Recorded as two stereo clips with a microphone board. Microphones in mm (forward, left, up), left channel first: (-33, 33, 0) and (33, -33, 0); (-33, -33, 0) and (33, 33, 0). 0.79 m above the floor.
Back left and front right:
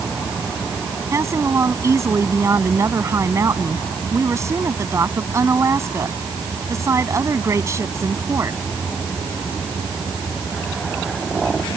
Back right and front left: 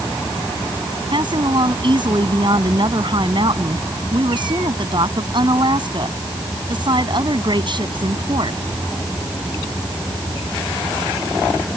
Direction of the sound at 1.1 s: 15° left.